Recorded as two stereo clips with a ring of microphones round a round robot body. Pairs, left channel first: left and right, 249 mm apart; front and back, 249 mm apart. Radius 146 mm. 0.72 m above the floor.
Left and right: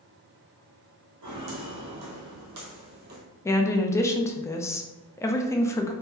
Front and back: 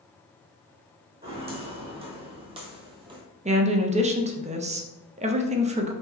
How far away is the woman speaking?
About 0.6 m.